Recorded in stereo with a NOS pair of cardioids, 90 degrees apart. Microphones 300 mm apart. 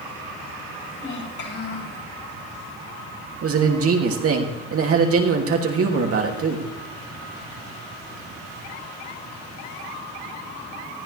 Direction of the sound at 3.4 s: 50° right.